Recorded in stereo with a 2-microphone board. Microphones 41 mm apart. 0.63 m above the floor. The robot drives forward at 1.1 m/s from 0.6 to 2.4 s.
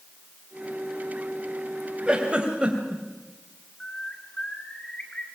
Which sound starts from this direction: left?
A bird, at 3.8 s.